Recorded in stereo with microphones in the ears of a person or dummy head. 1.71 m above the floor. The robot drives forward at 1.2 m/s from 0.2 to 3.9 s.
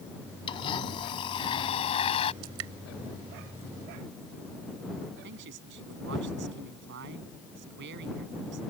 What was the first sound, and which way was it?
A blender, 25° left (ahead or behind).